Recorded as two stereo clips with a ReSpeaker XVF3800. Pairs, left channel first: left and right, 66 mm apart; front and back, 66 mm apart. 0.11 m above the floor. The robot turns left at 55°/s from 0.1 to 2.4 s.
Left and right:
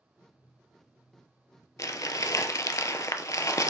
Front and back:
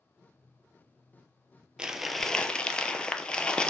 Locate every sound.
1.8 s crumpling: 105° left, 0.5 m; by 3.7 s 75° left, 0.5 m